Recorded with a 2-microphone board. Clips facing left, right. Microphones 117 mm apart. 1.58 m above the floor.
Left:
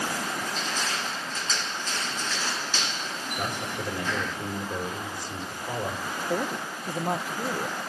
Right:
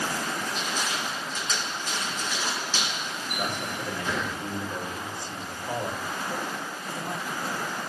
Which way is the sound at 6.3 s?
60° left (ahead or behind).